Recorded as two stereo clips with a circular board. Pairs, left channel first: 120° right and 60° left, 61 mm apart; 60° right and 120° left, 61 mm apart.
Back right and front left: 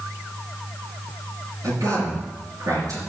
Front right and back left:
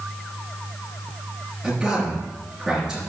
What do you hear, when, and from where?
1.6 s a man speaking: 45° left, 4.5 m